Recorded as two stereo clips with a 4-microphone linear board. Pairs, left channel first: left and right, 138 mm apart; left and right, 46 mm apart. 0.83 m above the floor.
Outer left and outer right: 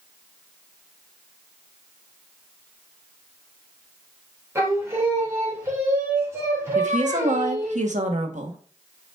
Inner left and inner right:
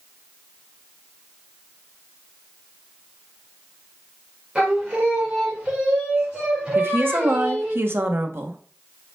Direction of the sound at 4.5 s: 20° right (ahead or behind).